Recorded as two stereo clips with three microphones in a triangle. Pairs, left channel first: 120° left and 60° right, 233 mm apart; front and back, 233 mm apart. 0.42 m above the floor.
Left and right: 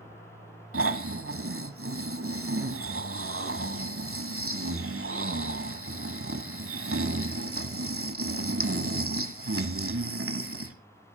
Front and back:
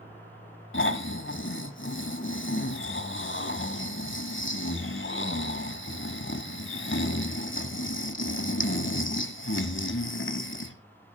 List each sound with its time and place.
0.7 s snoring: 35° right, 1.1 m